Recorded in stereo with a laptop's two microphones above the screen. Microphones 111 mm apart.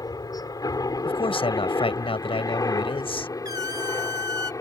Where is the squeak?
35° right (ahead or behind).